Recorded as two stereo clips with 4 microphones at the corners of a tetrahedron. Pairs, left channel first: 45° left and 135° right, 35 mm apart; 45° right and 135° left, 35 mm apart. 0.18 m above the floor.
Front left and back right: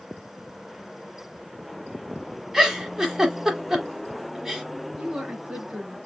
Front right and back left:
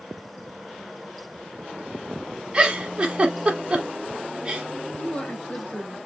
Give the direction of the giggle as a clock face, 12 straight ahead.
7 o'clock.